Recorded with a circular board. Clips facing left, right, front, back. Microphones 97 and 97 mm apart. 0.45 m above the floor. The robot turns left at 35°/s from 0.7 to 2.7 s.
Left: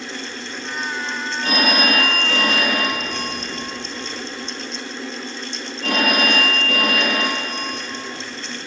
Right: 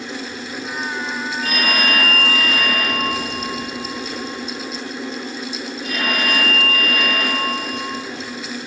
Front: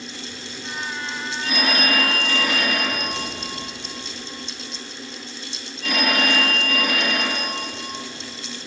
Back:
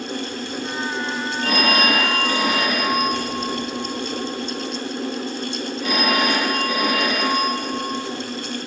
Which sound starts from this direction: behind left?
A phone ringing, at 1.4 s.